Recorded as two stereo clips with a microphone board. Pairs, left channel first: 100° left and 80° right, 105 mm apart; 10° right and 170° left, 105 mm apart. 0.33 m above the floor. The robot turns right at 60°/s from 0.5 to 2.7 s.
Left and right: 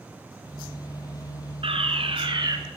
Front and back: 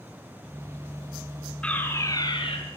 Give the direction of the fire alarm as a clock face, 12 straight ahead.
3 o'clock.